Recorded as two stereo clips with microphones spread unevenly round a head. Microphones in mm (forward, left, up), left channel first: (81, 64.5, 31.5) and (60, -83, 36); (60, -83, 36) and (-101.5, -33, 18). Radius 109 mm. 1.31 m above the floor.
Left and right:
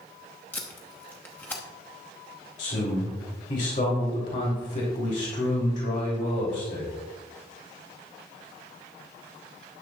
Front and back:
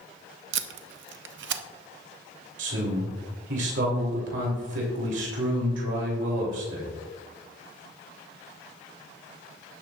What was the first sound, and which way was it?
Tape being pulled, 160° left.